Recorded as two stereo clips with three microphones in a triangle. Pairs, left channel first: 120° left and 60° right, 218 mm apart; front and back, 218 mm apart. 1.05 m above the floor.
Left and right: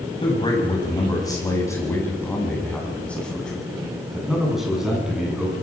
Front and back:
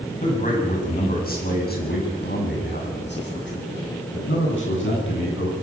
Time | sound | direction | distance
0.2 | a man speaking | 55° left | 7 m